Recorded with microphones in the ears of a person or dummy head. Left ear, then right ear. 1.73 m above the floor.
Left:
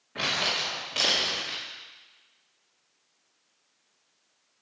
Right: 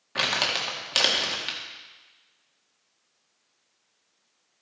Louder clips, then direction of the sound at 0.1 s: Right 2 dB; 50° right (ahead or behind).